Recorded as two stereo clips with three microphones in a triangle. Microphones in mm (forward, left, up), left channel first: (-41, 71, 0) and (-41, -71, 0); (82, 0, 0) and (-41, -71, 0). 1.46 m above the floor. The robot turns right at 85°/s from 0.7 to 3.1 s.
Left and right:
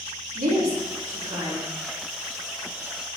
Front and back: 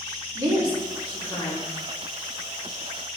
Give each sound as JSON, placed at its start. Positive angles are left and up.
{"t": 0.3, "sound": "a woman speaking", "azimuth_deg": -90, "distance_m": 2.5}